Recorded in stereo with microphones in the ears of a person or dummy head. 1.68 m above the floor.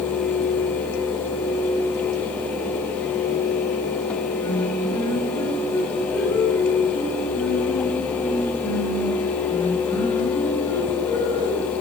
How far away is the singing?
About 5.5 m.